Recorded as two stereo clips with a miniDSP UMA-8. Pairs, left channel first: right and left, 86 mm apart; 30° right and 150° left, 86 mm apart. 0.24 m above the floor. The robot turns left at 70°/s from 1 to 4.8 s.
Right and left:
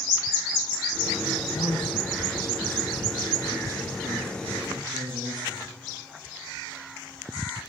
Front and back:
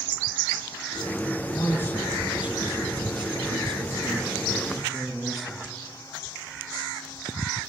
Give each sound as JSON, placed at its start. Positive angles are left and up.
{"t": 1.5, "sound": "a man speaking", "azimuth_deg": -70, "distance_m": 3.0}